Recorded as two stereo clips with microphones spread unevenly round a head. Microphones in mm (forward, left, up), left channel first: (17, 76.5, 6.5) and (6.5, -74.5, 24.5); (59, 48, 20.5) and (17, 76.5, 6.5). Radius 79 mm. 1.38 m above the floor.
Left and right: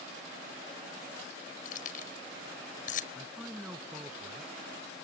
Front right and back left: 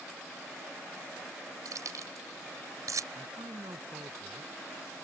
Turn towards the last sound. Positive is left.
turn(degrees=-175)